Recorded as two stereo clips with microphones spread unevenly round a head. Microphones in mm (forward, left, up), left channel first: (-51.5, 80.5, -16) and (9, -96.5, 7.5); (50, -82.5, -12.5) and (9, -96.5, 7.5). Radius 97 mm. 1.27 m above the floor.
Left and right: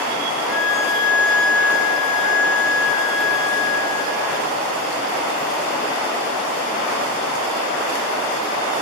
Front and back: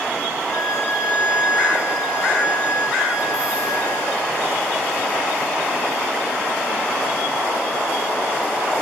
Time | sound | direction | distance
0.5 | a violin | 105° left | 3 m